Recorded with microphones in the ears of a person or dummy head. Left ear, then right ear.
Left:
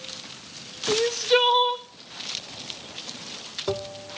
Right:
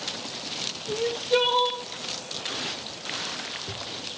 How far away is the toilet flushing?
I don't hear a toilet flushing.